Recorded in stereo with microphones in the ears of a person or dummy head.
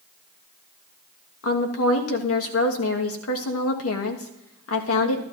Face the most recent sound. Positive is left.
turn(degrees=85)